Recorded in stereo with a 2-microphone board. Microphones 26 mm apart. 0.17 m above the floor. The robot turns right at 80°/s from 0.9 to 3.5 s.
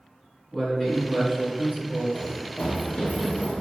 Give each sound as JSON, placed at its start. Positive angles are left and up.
{"t": 0.5, "sound": "a man speaking", "side_deg": 20, "distance_m": 1.6}
{"t": 2.1, "sound": "running footsteps", "side_deg": 60, "distance_m": 0.9}